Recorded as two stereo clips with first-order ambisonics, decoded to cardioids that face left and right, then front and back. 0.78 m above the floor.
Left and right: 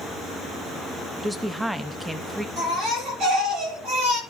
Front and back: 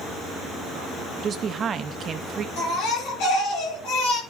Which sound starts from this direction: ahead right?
A baby crying, at 2.6 s.